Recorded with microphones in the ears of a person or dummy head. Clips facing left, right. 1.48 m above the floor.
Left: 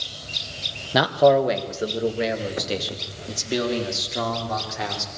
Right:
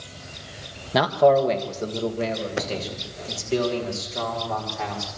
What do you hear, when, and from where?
0.9 s a man speaking: centre (ahead or behind), 1.1 m; by 5.1 s 25° left (ahead or behind), 5 m